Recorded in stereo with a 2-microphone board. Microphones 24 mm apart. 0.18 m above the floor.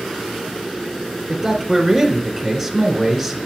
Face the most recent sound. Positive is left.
turn(degrees=0)  # may be behind; listen again after turning